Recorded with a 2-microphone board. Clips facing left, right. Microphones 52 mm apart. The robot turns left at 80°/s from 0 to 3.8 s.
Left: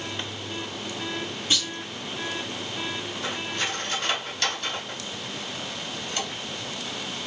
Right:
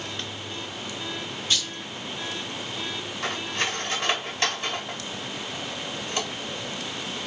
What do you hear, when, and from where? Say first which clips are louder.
1.5 s a clunk: left 1 dB; 25° left (ahead or behind), 4.5 m; by 1.7 s 10° left (ahead or behind), 4.5 m
3.2 s cutlery clinking: right 2 dB; 75° right (ahead or behind), 5.5 m; by 7.2 s 30° right (ahead or behind), 5.5 m